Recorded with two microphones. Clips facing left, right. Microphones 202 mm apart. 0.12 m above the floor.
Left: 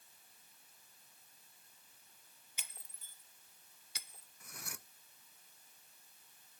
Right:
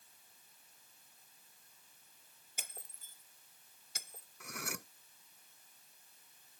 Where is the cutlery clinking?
75° right (ahead or behind).